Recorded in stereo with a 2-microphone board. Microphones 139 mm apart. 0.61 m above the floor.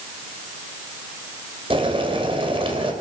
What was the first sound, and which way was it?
Boiling, 40° right (ahead or behind).